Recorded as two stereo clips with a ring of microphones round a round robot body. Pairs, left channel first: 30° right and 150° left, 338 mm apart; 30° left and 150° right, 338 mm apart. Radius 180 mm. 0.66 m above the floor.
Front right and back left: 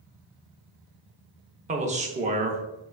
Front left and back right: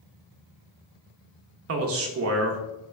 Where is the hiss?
I don't hear a hiss.